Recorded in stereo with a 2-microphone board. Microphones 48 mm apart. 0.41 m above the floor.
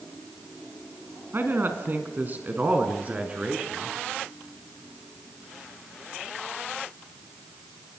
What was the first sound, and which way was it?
A man speaking, 50° right (ahead or behind).